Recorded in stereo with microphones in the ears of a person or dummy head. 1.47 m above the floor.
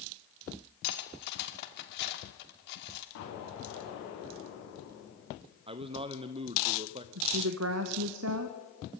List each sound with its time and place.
0.8 s cutlery clinking: 60° left (ahead or behind), 2 m
3.1 s an explosion: 75° left (ahead or behind), 7.5 m
5.7 s a man speaking: 25° right (ahead or behind), 0.7 m
7.2 s a woman speaking: 80° right, 1.2 m